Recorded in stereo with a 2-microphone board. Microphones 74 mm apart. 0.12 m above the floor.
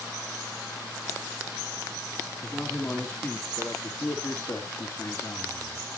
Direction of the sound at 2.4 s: 10° left (ahead or behind).